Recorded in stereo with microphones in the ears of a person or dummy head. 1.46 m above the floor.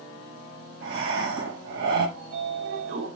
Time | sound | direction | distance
0.8 | breathing | 75° right (ahead or behind) | 3.5 m
2.2 | a sliding door | 55° right (ahead or behind) | 2 m